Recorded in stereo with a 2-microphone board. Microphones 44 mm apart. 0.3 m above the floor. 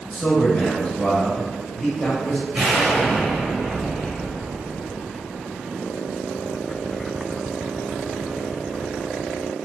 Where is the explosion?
5° right (ahead or behind), 1.4 m.